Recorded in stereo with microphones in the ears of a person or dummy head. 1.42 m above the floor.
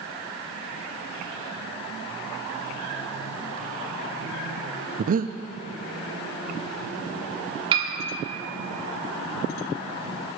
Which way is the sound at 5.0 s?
45° right (ahead or behind).